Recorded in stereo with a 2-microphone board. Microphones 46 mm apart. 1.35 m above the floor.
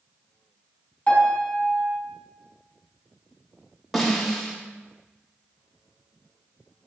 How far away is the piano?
About 4.5 m.